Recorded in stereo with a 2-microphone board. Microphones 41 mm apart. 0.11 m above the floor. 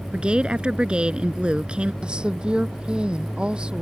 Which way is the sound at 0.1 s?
25° right (ahead or behind).